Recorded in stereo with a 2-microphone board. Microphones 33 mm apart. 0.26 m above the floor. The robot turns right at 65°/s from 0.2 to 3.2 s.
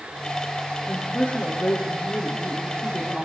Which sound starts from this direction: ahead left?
A woman speaking, at 0.9 s.